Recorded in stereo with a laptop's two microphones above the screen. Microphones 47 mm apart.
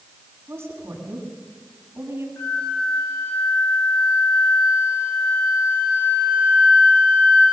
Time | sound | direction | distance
0.5 | a woman speaking | 65° right (ahead or behind) | 7 m
2.4 | a flute | 45° left (ahead or behind) | 5.5 m